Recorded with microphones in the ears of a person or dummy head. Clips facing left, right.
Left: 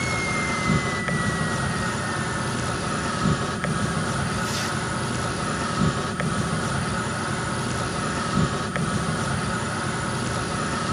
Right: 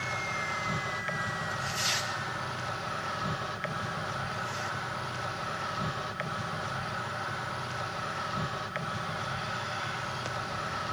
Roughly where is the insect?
Left.